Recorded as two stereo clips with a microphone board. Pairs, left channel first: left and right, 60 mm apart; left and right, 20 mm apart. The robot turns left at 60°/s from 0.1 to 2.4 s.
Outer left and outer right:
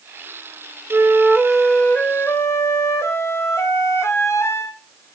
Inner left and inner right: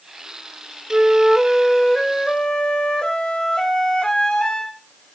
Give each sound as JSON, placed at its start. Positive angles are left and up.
{"t": 0.9, "sound": "a flute", "azimuth_deg": -140, "distance_m": 2.0}